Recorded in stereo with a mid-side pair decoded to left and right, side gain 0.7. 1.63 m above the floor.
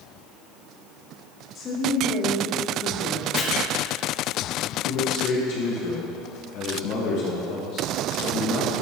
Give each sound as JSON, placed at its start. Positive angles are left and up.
{"t": 1.6, "sound": "a woman speaking", "azimuth_deg": 40, "distance_m": 2.0}
{"t": 3.4, "sound": "chopping", "azimuth_deg": 30, "distance_m": 1.9}
{"t": 4.8, "sound": "a man speaking", "azimuth_deg": 55, "distance_m": 1.5}